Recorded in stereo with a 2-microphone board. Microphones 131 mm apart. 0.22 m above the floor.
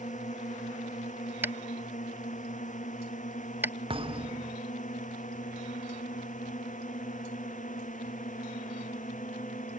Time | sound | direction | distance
0.0 | a drone | 70° left (ahead or behind) | ?
1.4 | tapping | 15° right (ahead or behind) | ?
3.9 | a thud | 45° right (ahead or behind) | ?